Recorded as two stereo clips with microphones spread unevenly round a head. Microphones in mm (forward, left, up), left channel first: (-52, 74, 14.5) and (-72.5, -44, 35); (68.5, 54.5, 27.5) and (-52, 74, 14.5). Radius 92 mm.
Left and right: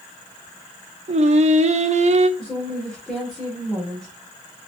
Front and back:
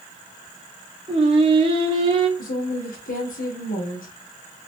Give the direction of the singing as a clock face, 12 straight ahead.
4 o'clock.